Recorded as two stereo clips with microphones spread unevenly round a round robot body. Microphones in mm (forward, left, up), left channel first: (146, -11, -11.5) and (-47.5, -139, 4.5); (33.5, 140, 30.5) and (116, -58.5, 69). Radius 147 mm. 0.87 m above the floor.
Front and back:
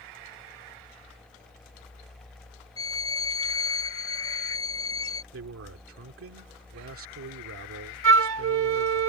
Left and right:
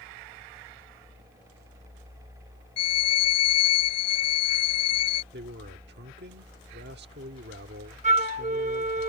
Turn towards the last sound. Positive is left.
turn(degrees=-130)